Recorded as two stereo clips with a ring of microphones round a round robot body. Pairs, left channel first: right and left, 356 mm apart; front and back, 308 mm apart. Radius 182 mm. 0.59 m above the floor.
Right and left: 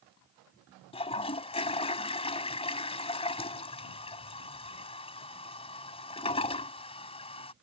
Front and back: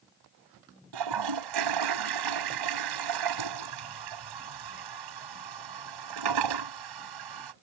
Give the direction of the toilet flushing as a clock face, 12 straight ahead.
6 o'clock.